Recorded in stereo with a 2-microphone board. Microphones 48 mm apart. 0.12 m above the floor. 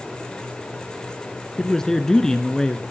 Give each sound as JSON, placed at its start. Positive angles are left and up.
{"t": 1.6, "sound": "a man speaking", "side_deg": 10, "distance_m": 1.1}